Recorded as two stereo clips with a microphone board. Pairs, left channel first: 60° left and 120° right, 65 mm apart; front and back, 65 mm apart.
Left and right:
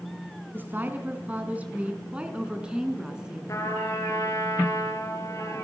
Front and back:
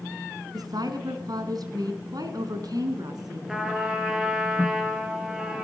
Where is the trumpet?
100° left, 4.5 m.